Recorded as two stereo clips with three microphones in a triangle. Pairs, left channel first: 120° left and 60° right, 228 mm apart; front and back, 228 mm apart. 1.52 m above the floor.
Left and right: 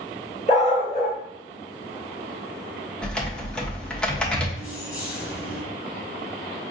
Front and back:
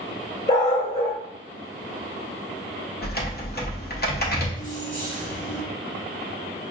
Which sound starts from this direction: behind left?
Keys jangling, at 4.6 s.